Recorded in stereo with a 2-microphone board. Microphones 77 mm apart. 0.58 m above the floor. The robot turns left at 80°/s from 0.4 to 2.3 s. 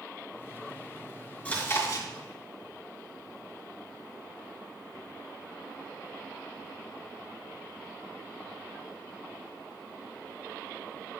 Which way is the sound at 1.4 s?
160° left.